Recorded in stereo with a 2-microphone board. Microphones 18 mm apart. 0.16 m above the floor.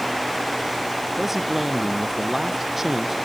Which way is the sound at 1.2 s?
20° right (ahead or behind).